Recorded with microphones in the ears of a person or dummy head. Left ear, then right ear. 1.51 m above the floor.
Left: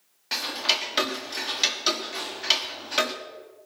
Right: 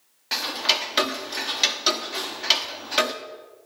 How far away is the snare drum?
About 7.5 m.